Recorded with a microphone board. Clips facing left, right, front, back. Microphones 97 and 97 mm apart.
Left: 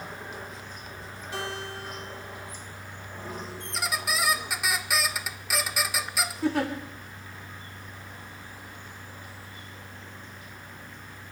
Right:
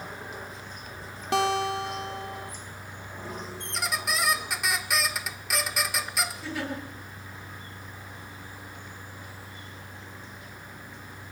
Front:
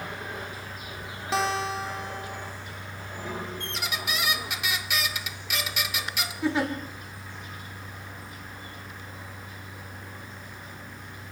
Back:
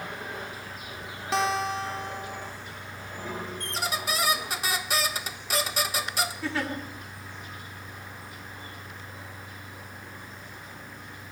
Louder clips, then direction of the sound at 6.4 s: Left 7 dB, front 9 dB; 70° left.